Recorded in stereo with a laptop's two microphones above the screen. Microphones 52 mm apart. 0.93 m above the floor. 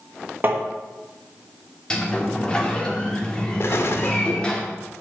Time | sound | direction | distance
0.4 | tapping | 40° right (ahead or behind) | 1.5 m
1.9 | a sliding door | 15° left (ahead or behind) | 1.4 m
3.6 | an explosion | 55° left (ahead or behind) | 0.8 m